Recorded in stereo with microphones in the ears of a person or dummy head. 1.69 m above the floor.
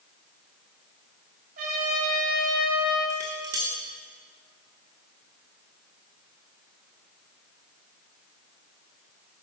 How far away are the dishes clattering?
About 0.8 m.